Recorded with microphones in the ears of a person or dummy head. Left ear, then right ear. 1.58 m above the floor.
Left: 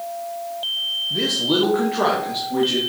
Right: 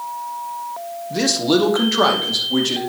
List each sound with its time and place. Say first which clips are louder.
1.1 s a man speaking: right 5 dB; 85° right, 1.2 m